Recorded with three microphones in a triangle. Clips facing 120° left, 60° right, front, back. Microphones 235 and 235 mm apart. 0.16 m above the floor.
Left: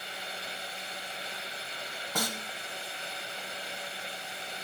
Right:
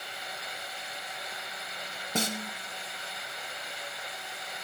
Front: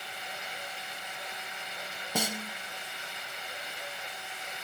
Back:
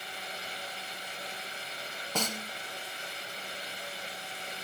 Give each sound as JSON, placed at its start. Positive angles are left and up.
{"t": 2.1, "sound": "a snare drum", "azimuth_deg": -65, "distance_m": 0.7}